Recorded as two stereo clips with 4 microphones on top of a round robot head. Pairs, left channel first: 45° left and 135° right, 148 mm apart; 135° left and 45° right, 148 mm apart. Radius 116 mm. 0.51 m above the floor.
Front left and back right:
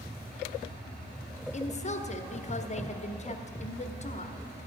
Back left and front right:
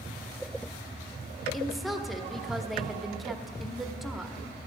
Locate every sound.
1.5 s a woman speaking: 45° left, 1.2 m